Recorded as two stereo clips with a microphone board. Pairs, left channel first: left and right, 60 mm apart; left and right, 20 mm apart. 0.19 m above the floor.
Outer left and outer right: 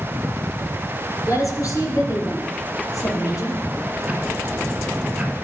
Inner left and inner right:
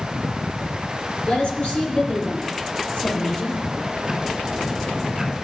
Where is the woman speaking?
70° left (ahead or behind), 4 m.